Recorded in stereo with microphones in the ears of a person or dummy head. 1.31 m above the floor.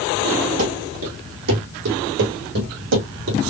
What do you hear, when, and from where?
0.6 s running footsteps: 50° right (ahead or behind), 3 m; by 3.4 s 70° right (ahead or behind), 4 m